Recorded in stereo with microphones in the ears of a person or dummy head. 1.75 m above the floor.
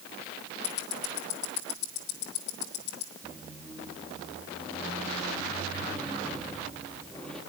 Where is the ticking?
65° left (ahead or behind), 2.5 m.